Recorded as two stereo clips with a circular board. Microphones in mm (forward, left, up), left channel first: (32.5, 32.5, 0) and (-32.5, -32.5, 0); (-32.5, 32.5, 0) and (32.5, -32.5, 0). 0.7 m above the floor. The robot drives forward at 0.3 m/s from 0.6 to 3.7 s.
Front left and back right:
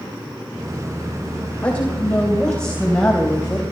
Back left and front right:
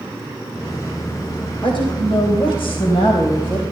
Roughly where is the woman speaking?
Behind left.